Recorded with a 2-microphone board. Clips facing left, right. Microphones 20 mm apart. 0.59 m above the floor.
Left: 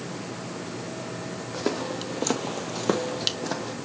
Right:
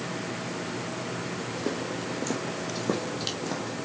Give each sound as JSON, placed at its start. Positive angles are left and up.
{"t": 1.5, "sound": "footsteps", "side_deg": 45, "distance_m": 1.3}